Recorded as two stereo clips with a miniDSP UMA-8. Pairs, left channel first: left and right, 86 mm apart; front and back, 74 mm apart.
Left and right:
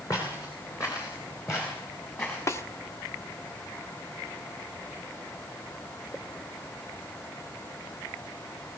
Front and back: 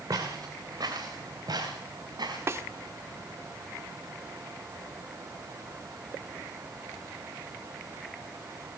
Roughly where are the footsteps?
Behind left.